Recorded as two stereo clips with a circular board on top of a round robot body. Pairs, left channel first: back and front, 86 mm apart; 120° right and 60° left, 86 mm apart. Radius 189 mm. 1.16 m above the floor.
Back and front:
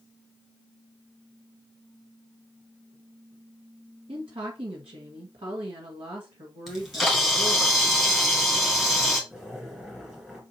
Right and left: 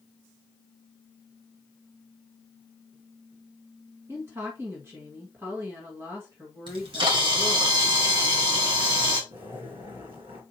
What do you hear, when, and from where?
4.1 s a woman speaking: straight ahead, 1.7 m
6.7 s a camera shutter: 90° left, 1.3 m
9.3 s a zipper: 85° left, 2 m